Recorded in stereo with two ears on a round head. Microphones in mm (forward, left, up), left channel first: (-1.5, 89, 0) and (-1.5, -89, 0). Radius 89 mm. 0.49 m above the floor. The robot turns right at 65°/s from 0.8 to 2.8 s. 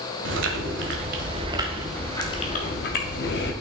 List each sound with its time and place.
0.2 s chewing: 70° right, 1.6 m; by 3.5 s 60° left, 1.6 m